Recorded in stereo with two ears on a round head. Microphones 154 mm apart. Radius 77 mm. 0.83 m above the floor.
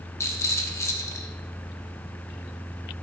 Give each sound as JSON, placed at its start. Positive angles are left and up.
{"t": 0.2, "sound": "a rattle", "side_deg": 15, "distance_m": 1.0}